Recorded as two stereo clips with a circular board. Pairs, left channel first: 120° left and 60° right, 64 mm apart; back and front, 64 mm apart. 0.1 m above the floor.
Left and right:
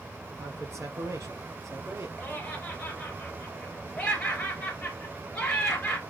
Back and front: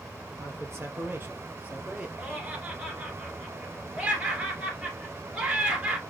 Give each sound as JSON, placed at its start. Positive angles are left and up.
{"t": 0.4, "sound": "a man speaking", "azimuth_deg": -30, "distance_m": 2.0}
{"t": 2.2, "sound": "laughter", "azimuth_deg": 45, "distance_m": 1.7}